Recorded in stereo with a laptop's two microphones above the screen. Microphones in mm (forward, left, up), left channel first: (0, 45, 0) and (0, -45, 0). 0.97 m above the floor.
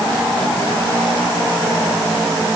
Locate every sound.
Only background noise.